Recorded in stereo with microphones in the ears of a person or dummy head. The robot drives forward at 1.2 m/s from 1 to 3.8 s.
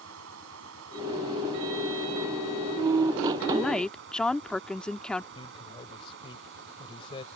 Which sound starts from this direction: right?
Running water, at 0.0 s.